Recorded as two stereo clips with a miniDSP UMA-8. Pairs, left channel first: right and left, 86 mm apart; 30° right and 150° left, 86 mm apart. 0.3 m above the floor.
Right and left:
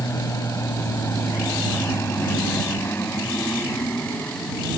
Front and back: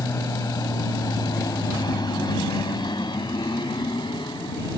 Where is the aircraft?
60° right; by 4.8 s 25° right.